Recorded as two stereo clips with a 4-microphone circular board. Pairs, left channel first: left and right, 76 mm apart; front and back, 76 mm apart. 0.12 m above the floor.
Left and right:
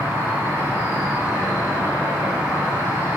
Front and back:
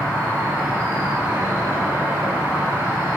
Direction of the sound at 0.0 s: 135° right.